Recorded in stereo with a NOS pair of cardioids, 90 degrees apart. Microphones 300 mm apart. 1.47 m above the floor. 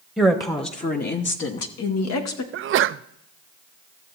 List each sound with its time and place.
0.2 s a woman speaking: 5° left, 1.2 m; by 2.4 s 70° left, 1.6 m
2.5 s a sneeze: 50° right, 0.5 m